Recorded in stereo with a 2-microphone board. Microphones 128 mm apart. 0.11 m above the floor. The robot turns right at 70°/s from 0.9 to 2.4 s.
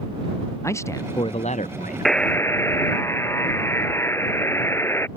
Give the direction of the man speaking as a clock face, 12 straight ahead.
11 o'clock.